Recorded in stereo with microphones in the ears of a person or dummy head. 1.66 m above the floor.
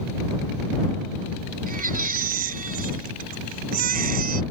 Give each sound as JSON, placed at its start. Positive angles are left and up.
{"t": 1.7, "sound": "a baby crying", "side_deg": -50}